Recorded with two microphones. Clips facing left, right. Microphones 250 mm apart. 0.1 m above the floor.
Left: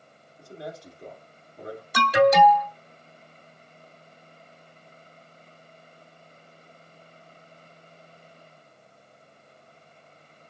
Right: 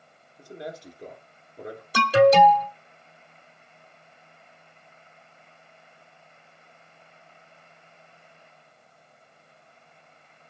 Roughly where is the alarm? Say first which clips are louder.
Right 2 dB; right.